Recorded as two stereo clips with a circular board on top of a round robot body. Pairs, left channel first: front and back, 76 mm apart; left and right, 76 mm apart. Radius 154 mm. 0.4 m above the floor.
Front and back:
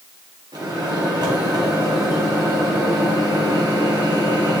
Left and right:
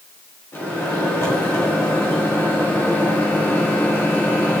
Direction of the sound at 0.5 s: 150° left.